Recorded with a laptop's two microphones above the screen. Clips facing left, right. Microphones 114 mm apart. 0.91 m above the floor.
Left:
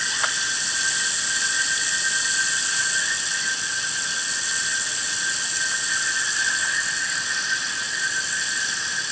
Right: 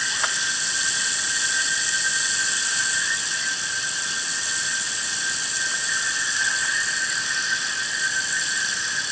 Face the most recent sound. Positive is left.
No sound to turn to.